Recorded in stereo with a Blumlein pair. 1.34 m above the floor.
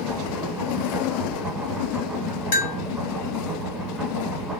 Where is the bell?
50° left, 0.7 m.